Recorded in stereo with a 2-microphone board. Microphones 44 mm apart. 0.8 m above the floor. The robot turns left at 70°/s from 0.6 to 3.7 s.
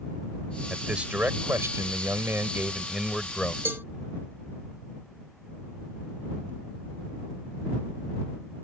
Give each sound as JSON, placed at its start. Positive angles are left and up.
{"t": 0.7, "sound": "a man speaking", "azimuth_deg": -5}
{"t": 3.6, "sound": "a cowbell", "side_deg": -50}